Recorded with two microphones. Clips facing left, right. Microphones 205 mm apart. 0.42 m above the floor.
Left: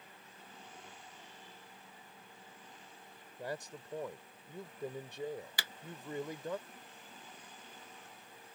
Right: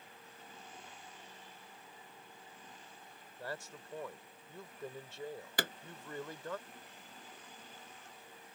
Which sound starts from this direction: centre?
A man speaking, at 3.4 s.